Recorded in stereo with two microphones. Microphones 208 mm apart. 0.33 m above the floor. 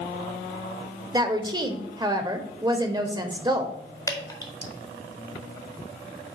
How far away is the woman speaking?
About 0.8 m.